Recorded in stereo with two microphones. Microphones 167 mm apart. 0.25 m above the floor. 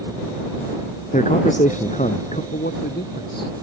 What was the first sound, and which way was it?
A man speaking, 50° left (ahead or behind).